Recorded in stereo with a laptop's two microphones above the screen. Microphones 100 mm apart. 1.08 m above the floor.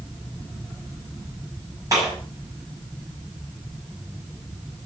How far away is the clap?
About 7.5 m.